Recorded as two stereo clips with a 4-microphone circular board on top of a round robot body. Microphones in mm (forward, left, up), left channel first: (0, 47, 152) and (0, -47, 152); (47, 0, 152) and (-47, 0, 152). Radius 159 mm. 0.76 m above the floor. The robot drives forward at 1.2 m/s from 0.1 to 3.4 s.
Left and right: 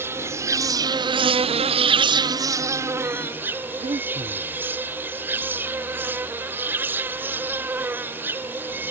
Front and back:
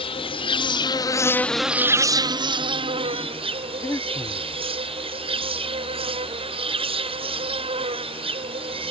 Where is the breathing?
65° right.